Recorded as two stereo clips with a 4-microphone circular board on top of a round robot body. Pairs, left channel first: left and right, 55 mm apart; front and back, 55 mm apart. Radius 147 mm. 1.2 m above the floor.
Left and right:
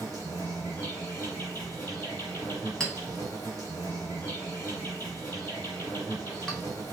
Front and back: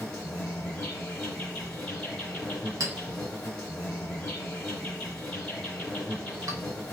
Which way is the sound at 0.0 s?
75° left.